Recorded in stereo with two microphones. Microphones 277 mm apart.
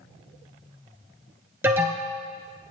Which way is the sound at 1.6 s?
10° right (ahead or behind).